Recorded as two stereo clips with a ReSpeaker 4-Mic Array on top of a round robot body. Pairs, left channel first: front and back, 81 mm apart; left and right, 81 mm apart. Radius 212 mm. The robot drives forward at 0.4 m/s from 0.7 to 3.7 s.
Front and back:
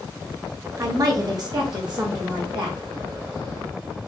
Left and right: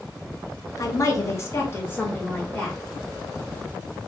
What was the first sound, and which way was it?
A woman speaking, 135° left.